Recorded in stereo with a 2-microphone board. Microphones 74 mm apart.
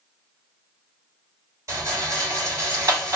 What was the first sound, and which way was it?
A rattle, 45° right (ahead or behind).